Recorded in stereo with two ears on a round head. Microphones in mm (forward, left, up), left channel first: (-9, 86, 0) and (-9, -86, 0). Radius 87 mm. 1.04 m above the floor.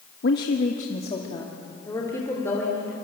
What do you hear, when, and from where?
0.2 s a woman speaking: 60° left (ahead or behind), 1.3 m; by 2.9 s 10° left (ahead or behind), 4 m